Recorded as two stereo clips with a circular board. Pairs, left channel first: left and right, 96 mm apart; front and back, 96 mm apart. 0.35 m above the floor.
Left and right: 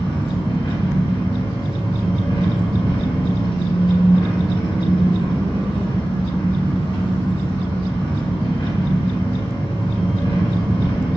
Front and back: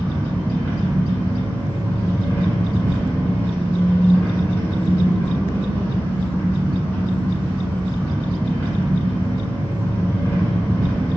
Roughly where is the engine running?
Left.